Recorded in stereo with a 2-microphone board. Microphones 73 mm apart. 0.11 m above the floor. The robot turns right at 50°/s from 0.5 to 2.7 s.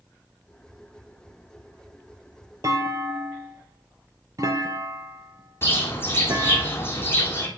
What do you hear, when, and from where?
2.6 s a clunk: 50° right (ahead or behind), 0.7 m
5.6 s a bird: 35° left (ahead or behind), 1.2 m